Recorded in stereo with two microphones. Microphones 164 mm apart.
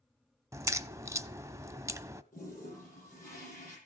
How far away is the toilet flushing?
About 9.5 m.